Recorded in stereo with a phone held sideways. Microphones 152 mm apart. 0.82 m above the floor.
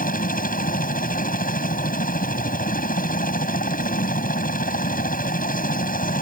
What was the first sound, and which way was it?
A helicopter, 65° left (ahead or behind).